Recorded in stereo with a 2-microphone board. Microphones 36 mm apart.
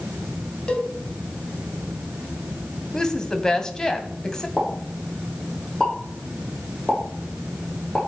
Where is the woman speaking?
15° left (ahead or behind), 2 m.